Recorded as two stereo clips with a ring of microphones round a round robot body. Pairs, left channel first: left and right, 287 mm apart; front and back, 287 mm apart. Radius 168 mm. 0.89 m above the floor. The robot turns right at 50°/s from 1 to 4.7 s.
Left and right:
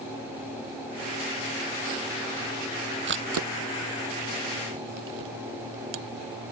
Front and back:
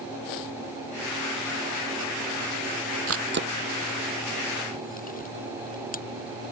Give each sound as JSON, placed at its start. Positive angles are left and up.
{"t": 3.1, "sound": "a camera shutter", "azimuth_deg": -140}